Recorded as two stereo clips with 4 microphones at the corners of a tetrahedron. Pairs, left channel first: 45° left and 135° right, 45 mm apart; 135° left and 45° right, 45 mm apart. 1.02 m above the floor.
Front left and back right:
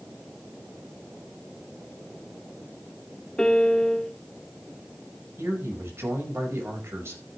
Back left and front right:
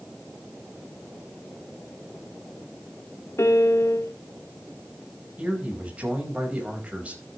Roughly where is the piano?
Behind left.